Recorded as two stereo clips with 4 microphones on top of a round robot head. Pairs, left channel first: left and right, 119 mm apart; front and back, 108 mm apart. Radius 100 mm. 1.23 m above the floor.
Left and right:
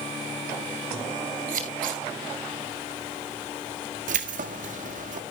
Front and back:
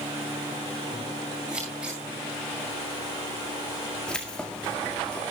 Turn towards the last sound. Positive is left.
turn(degrees=-80)